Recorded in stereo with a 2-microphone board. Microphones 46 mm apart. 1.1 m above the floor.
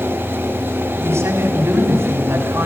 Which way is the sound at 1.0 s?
70° right (ahead or behind).